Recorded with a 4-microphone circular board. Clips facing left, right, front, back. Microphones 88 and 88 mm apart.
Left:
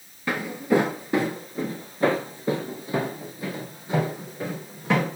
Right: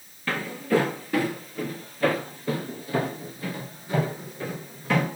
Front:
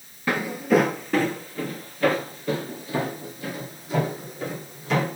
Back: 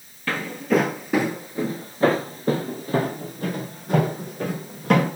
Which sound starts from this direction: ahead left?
Footsteps, at 0.3 s.